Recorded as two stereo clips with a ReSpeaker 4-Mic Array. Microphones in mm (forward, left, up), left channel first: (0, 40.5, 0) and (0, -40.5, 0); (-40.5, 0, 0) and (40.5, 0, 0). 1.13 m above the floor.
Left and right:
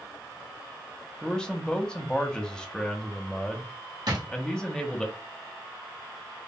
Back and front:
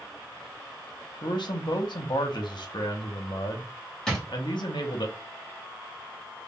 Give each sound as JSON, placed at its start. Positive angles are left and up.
{"t": 1.2, "sound": "a man speaking", "azimuth_deg": 170, "distance_m": 0.8}
{"t": 4.1, "sound": "a drawer", "azimuth_deg": -100, "distance_m": 1.4}